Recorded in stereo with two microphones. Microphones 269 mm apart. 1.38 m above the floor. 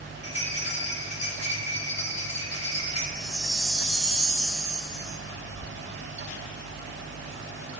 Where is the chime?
Centre (ahead or behind), 0.9 m.